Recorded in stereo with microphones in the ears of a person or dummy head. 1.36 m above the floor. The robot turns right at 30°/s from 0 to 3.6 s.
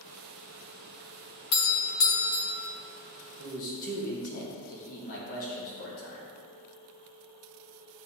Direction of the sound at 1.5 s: 65° left.